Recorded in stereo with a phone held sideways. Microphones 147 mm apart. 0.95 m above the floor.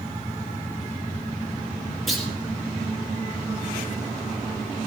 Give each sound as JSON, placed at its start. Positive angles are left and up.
{"t": 2.1, "sound": "a clunk", "side_deg": 0, "distance_m": 2.5}